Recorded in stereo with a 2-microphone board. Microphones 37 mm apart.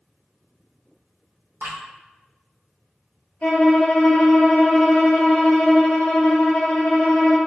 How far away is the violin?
About 0.8 m.